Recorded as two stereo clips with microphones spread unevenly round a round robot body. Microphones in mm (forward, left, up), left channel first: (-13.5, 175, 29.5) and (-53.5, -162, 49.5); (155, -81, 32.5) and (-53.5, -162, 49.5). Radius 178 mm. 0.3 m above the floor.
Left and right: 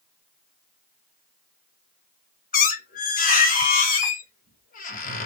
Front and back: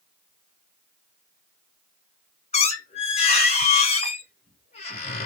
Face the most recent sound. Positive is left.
turn(degrees=45)